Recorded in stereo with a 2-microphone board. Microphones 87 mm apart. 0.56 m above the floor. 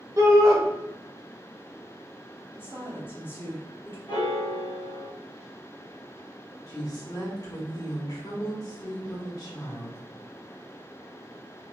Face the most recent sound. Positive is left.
turn(degrees=40)  # may be behind; listen again after turning